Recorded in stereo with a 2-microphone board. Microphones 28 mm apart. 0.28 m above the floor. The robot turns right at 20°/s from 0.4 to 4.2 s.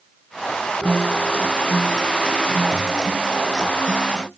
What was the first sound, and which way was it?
A guitar, 90° right.